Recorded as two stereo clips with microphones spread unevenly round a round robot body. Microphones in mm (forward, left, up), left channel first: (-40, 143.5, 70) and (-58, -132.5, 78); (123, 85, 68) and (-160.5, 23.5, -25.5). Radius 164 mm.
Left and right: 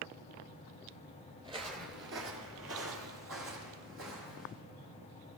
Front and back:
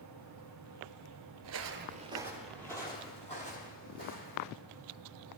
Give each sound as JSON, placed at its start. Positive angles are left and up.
{"t": 1.4, "sound": "footsteps", "azimuth_deg": -155, "distance_m": 0.7}